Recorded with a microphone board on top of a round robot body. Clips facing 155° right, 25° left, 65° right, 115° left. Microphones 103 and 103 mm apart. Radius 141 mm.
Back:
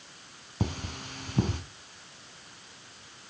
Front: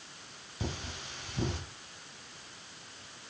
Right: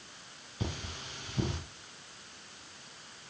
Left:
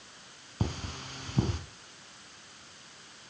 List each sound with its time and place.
0.6 s cutlery clinking: 160° left, 3 m